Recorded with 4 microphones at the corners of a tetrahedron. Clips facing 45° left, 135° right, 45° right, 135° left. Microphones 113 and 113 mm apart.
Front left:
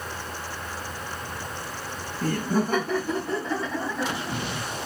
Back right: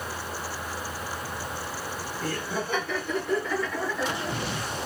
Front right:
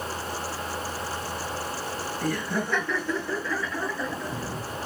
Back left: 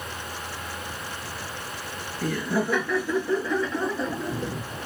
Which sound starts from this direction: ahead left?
Laughter, at 2.2 s.